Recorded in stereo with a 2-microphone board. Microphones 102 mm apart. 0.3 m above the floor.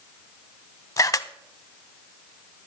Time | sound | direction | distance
1.0 | a camera shutter | 35° left (ahead or behind) | 0.5 m